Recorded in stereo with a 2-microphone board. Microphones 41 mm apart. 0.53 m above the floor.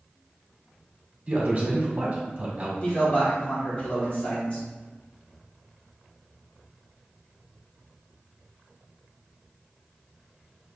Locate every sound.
1.3 s a man speaking: 30° right (ahead or behind), 1.5 m
2.8 s a man speaking: 35° left (ahead or behind), 1.7 m